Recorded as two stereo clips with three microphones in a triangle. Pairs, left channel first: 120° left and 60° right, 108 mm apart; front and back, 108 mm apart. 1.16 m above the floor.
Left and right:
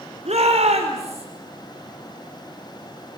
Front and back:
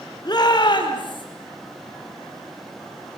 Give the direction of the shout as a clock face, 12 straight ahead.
2 o'clock.